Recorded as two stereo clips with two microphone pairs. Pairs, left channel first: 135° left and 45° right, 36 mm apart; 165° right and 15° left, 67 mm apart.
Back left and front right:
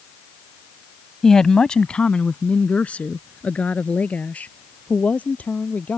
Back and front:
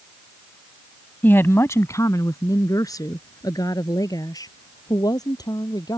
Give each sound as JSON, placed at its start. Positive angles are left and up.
{"t": 1.2, "sound": "a woman speaking", "azimuth_deg": -170}